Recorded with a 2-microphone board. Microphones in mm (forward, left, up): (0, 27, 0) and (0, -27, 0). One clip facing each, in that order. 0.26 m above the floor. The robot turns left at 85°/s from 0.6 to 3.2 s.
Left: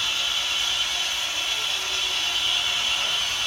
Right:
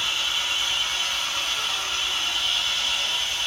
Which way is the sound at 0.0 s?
20° right.